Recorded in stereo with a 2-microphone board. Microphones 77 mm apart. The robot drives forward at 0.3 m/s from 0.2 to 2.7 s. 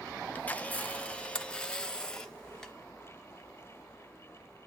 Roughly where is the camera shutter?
Left.